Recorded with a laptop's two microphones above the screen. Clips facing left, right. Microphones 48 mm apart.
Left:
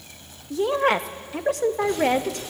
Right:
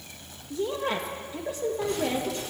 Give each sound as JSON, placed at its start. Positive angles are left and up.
{"t": 0.5, "sound": "a woman speaking", "side_deg": 70, "distance_m": 0.7}